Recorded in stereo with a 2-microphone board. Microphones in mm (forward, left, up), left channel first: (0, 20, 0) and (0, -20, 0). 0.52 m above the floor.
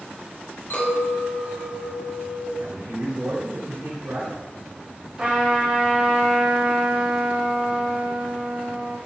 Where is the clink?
55° left (ahead or behind), 3.5 m.